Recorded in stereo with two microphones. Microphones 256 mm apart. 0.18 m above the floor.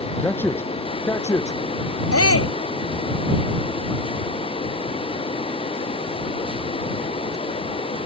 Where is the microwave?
I don't hear a microwave.